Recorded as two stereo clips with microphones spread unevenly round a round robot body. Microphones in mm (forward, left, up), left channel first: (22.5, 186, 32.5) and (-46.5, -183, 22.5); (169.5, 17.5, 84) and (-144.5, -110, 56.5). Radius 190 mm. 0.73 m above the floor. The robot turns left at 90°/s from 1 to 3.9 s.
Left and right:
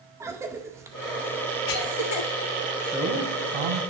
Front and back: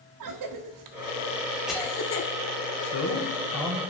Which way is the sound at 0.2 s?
Straight behind.